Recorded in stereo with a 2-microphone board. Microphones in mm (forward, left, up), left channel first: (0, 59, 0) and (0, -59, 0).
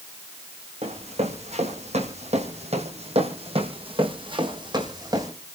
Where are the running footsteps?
65° right (ahead or behind), 4 m; by 5.3 s 30° right (ahead or behind), 3.5 m.